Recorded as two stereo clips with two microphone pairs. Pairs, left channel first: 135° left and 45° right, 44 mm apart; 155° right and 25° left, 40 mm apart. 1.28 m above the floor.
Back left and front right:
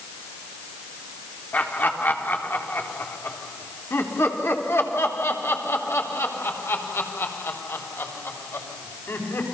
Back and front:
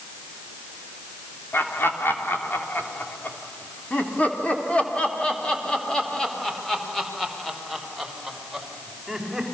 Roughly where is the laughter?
Behind.